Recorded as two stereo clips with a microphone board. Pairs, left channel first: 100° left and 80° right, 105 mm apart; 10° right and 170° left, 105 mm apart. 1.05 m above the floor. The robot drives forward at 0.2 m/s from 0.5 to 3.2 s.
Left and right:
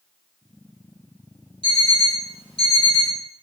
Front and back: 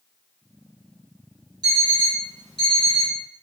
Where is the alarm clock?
125° left, 1.2 m; by 3.2 s 140° left, 1.4 m.